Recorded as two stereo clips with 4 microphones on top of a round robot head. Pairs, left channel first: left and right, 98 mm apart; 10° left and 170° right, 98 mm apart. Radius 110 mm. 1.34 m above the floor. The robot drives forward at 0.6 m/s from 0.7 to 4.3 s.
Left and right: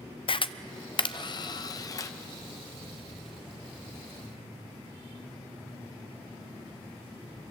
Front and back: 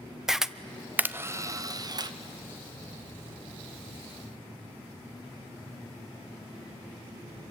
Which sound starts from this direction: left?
A camera shutter, at 0.3 s.